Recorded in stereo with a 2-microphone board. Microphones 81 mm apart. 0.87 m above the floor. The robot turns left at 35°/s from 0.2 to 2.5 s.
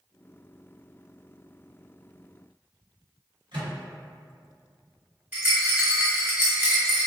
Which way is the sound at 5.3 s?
20° right (ahead or behind).